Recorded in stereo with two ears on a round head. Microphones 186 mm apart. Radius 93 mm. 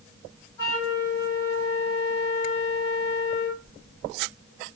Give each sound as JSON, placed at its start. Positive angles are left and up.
{"t": 0.6, "sound": "a flute", "side_deg": 15, "distance_m": 1.8}